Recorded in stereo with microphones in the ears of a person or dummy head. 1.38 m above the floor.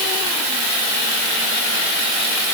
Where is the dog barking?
No dog barking in this recording.